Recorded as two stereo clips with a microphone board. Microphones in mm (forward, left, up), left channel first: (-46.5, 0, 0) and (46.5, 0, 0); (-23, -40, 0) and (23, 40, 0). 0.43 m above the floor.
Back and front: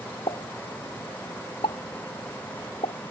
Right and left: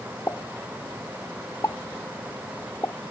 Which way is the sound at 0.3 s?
Straight behind.